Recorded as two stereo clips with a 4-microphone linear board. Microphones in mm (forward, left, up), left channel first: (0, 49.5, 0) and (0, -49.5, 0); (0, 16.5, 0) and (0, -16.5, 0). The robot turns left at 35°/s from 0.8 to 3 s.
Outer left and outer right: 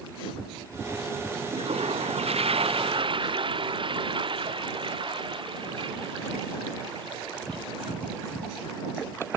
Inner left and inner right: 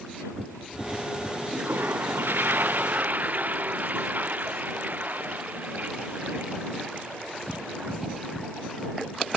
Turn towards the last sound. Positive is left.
turn(degrees=-120)